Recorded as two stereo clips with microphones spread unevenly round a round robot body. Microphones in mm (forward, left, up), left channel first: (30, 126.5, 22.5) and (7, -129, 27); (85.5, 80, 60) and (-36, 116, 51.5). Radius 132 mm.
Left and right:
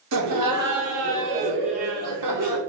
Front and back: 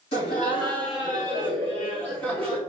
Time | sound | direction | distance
0.1 | laughter | 75° right | 1.7 m